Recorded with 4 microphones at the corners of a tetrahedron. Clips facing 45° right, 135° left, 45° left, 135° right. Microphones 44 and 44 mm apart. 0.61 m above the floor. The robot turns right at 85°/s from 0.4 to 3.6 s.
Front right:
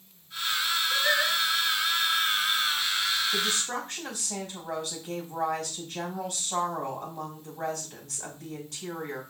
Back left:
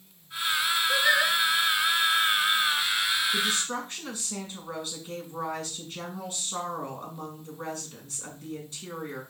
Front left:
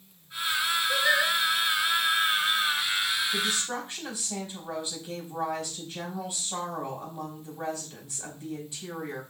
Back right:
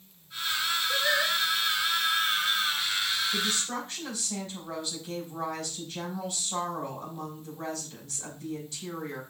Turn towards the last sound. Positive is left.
turn(degrees=-30)